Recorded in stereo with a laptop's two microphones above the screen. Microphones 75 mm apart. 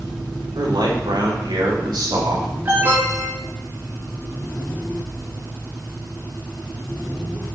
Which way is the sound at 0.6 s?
80° right.